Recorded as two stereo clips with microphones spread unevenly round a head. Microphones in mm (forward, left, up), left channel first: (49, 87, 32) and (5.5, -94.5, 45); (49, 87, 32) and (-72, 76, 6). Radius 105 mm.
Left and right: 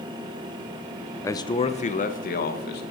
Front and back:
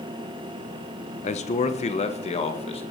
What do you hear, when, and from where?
1.2 s a man speaking: straight ahead, 1.0 m; by 2.8 s 40° left, 2 m